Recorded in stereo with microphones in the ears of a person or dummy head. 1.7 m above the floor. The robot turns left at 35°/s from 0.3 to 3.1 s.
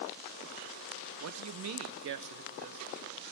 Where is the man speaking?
90° right, 1.3 m; by 2.9 s 150° right, 1.3 m.